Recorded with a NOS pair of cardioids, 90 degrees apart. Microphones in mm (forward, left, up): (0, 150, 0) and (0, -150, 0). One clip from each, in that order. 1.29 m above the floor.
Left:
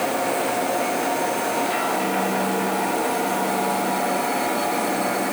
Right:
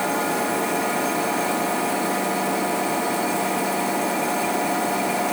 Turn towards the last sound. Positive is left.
No sound to turn to.